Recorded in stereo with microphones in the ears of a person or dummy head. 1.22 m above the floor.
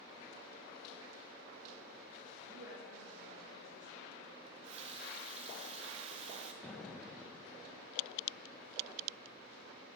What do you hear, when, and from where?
2.5 s a woman speaking: 85° right, 5 m; by 4.3 s 65° right (ahead or behind), 4 m
4.5 s a running tap: 40° right (ahead or behind), 0.7 m
6.6 s an explosion: 5° left (ahead or behind), 1.0 m